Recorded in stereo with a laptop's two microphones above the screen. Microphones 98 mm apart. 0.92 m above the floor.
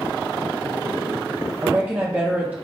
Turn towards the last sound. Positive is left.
turn(degrees=-15)  # may be behind; listen again after turning